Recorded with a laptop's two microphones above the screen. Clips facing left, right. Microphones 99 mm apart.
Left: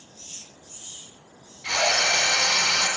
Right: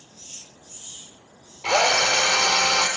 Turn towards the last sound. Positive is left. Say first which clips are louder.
# right 5 dB
turn(degrees=-75)  # may be behind; listen again after turning